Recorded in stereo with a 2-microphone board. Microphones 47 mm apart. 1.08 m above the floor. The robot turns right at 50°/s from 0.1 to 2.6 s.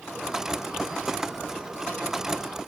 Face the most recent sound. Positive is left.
No sound to turn to.